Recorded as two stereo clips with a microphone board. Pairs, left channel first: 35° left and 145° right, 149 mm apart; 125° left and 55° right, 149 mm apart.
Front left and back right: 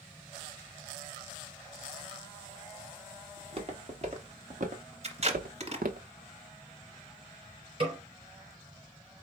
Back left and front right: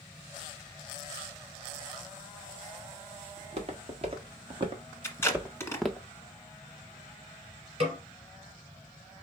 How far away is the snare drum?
About 2.5 m.